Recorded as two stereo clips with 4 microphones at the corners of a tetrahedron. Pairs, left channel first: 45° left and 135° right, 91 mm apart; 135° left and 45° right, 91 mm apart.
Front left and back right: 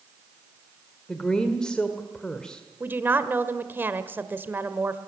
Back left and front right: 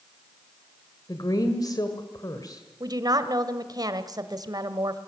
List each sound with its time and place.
1.1 s a woman speaking: 125° left, 1.8 m
2.8 s a woman speaking: 70° right, 1.4 m